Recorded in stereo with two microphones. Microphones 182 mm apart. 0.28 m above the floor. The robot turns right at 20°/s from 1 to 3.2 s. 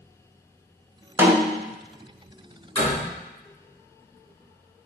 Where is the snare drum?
15° right (ahead or behind), 0.5 m; by 1.6 s 20° right (ahead or behind), 0.5 m.